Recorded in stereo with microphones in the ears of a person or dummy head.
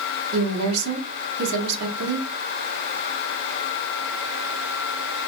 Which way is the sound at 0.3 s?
80° right.